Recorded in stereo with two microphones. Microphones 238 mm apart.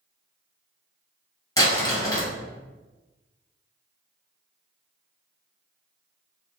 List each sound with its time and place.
1.6 s crumpling: 15° left (ahead or behind), 1.8 m